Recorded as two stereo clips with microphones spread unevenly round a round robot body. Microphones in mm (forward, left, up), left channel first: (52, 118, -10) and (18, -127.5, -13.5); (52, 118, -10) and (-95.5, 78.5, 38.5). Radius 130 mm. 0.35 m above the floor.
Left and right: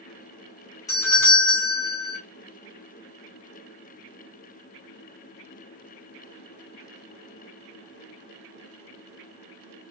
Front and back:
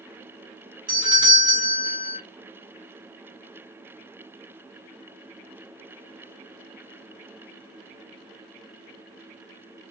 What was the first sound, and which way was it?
A doorbell, 135° left.